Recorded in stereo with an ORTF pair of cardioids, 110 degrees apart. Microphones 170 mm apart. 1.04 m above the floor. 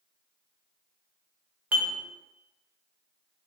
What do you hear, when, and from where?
1.7 s dishes clattering: 10° right, 0.6 m